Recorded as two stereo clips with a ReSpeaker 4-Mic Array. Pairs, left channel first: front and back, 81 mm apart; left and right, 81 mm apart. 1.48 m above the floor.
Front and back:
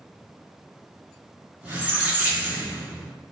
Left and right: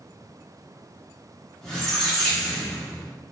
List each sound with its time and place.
1.6 s a squeak: 155° left, 0.8 m